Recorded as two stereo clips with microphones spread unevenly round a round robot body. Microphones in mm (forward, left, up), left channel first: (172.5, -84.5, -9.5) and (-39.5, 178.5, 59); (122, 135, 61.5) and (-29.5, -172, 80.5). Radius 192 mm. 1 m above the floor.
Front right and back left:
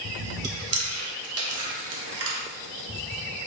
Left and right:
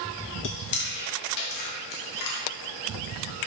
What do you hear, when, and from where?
0.4 s chewing: 80° left, 0.7 m